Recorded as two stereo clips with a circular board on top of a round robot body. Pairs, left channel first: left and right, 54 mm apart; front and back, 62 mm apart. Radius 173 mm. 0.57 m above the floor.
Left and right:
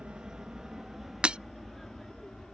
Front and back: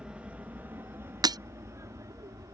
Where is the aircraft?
135° right; by 2.5 s 170° left.